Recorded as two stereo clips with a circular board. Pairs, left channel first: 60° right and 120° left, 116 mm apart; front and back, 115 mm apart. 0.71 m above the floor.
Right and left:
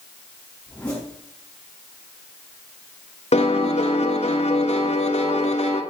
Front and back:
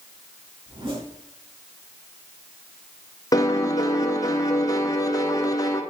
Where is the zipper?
140° right, 5 m.